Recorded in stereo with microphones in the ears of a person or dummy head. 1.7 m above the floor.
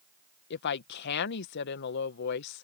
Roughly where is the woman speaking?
Left.